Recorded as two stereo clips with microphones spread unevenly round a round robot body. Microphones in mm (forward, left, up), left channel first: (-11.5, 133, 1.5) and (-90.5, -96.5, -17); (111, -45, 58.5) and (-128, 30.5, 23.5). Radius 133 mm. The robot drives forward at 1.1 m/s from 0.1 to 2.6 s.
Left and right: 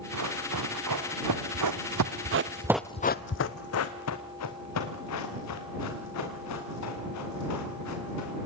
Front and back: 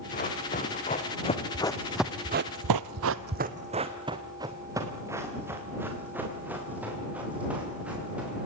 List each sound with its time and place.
0.1 s running footsteps: 75° right, 4 m; by 8.5 s 75° left, 9 m